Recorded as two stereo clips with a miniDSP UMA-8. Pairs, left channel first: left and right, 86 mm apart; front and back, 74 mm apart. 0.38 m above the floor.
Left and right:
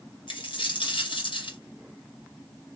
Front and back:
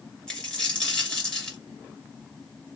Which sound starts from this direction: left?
A dropped coin, at 0.3 s.